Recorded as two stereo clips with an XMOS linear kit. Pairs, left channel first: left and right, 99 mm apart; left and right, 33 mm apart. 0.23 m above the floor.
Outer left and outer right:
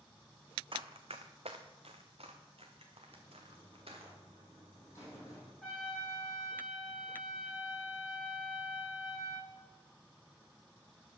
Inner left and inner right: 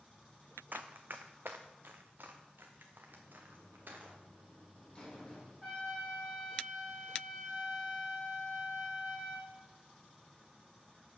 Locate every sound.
0.7 s running footsteps: 60° right (ahead or behind), 0.8 m; by 4.1 s 70° right (ahead or behind), 2.5 m
3.1 s a buzzer: 25° left (ahead or behind), 4.5 m
5.6 s a trumpet: 5° left (ahead or behind), 4 m